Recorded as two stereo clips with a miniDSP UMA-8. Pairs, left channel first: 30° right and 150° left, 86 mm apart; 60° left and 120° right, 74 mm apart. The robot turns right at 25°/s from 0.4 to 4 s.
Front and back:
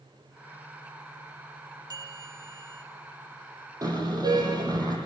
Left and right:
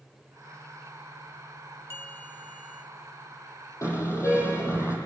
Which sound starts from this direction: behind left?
A bell, at 1.9 s.